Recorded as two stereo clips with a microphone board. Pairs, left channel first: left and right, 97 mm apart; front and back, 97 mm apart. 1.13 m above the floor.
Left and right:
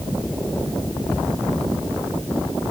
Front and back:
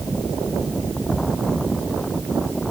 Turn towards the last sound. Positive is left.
No sound to turn to.